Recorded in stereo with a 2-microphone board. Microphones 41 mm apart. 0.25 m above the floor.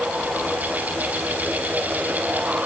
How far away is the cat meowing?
No cat meowing in this recording.